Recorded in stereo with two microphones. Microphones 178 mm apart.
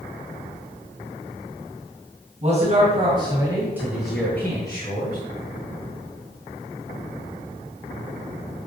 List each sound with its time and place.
2.4 s a man speaking: 40° right (ahead or behind), 2.5 m; by 5.2 s 40° left (ahead or behind), 1.8 m